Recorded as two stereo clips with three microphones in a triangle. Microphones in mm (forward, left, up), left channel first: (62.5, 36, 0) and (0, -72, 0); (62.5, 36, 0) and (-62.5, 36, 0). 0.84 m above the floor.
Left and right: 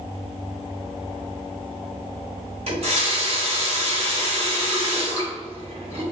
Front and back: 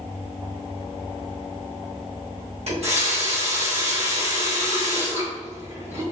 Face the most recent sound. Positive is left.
turn(degrees=-155)